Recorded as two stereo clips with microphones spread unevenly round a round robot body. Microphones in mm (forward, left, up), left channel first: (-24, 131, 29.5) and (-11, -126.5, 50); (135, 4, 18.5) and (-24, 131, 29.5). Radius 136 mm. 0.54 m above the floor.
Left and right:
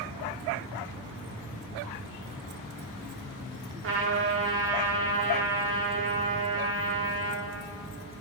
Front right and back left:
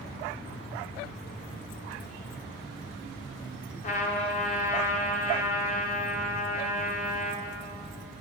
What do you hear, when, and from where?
3.8 s a trumpet: 70° right, 1.8 m